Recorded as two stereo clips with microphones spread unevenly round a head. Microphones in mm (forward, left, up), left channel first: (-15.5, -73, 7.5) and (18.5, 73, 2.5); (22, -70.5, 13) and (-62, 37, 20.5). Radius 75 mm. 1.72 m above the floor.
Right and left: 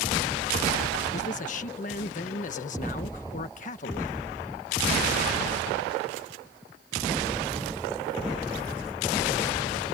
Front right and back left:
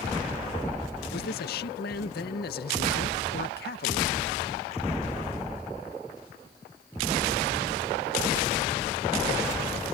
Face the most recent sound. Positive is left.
turn(degrees=-65)